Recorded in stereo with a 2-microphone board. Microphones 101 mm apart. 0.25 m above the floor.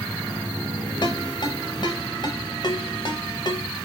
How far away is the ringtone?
About 1.2 m.